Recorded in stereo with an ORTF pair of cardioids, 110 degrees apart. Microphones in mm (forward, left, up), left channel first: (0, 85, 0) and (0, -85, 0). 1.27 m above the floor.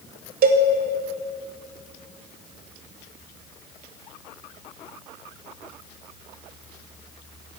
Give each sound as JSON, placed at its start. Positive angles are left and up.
{"t": 0.4, "sound": "a cowbell", "azimuth_deg": -55, "distance_m": 2.0}